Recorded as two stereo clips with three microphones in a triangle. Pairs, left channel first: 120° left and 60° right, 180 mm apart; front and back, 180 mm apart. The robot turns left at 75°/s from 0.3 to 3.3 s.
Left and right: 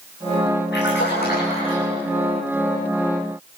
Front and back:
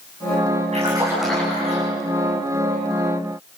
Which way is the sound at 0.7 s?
130° left.